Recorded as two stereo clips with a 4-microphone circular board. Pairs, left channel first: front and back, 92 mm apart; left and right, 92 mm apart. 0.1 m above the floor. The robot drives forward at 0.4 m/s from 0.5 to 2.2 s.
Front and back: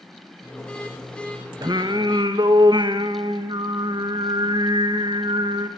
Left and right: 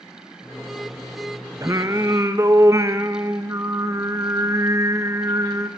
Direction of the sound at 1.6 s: 145° right.